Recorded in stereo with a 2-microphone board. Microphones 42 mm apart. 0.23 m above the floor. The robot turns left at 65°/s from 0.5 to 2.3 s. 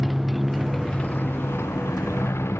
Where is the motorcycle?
175° right; by 2.6 s 70° left.